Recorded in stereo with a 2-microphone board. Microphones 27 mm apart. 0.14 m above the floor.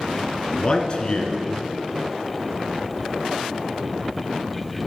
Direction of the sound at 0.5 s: 35° left (ahead or behind).